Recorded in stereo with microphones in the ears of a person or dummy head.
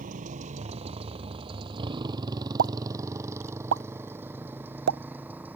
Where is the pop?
80° right.